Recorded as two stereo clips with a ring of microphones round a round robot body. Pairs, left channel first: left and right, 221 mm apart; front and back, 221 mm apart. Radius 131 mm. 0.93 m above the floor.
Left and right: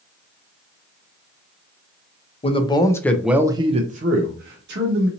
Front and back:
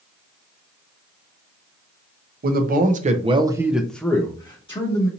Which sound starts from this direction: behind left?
A man speaking, at 2.4 s.